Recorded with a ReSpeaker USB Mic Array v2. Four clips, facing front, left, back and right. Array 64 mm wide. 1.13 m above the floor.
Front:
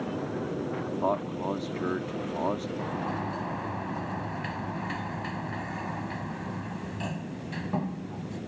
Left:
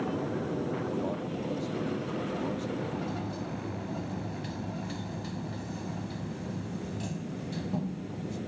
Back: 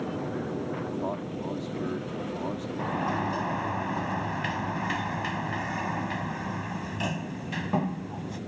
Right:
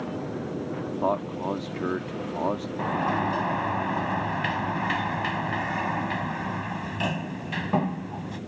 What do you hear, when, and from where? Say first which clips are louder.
1.0 s a man speaking: right 7 dB, front 4 dB; 55° right
2.8 s a sliding door: right 9 dB, back 3 dB; 105° right